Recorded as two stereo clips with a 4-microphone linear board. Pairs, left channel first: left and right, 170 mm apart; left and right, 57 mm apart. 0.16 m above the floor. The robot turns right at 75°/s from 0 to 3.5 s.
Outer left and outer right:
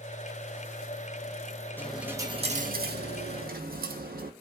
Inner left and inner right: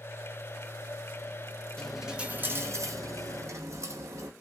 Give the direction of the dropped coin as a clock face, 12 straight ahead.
6 o'clock.